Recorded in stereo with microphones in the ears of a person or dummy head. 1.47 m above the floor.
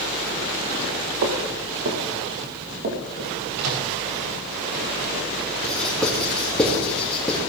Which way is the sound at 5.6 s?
5° left (ahead or behind).